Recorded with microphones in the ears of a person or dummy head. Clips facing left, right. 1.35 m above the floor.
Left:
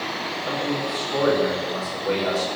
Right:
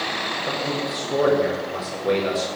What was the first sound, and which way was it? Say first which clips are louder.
A man speaking: left 1 dB; 30° right (ahead or behind).